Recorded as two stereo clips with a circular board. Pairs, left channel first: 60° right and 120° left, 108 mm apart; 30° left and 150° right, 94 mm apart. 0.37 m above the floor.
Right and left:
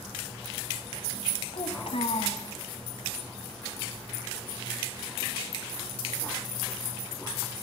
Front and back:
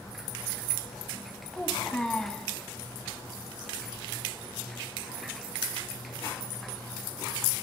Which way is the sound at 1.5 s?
50° right.